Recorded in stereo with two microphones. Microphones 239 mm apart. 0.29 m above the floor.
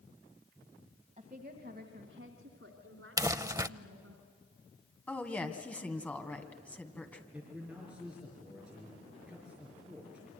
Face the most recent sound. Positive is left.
turn(degrees=-5)  # may be behind; listen again after turning